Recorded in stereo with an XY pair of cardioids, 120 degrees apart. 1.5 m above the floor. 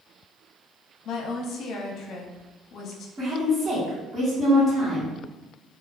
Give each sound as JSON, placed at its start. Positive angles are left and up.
{"t": 1.1, "sound": "a woman speaking", "azimuth_deg": 60, "distance_m": 0.6}
{"t": 3.2, "sound": "a woman speaking", "azimuth_deg": -20, "distance_m": 1.3}